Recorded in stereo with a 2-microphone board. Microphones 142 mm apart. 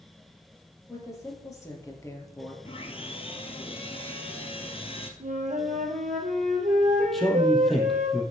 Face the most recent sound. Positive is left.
turn(degrees=0)  # may be behind; listen again after turning